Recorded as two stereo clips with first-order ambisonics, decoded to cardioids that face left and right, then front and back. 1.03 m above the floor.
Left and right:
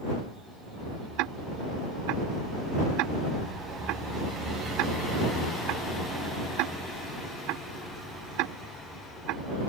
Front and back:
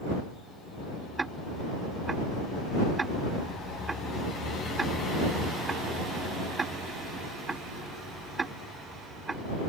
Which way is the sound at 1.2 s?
105° right.